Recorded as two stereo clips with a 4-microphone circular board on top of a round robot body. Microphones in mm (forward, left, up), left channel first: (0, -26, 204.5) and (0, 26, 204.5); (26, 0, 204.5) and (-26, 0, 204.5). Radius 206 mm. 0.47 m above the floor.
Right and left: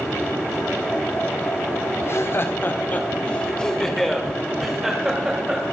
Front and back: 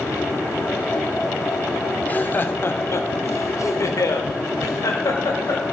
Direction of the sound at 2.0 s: 60° right.